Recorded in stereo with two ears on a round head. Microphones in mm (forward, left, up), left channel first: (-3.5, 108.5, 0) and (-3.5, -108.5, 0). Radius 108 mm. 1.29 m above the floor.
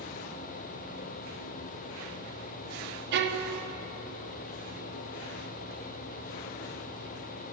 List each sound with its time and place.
3.1 s a violin: 45° right (ahead or behind), 0.7 m